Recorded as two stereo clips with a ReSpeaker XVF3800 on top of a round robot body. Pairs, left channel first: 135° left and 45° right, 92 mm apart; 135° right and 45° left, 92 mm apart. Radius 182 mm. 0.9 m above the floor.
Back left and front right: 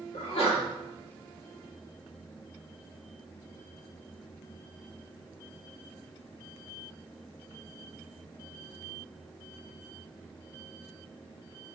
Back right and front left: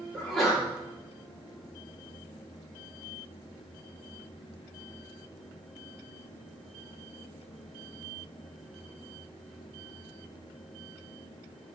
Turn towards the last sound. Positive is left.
turn(degrees=135)